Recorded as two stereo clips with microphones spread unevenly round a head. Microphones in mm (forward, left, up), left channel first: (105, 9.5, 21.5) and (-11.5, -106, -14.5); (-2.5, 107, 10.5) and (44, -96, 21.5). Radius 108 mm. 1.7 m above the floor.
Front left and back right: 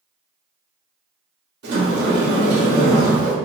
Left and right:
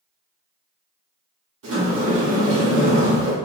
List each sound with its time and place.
1.6 s a sliding door: 115° right, 1.5 m